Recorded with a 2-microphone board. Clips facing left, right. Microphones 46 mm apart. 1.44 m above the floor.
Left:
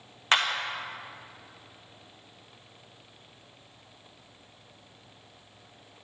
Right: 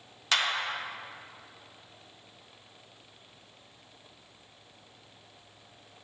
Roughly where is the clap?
Left.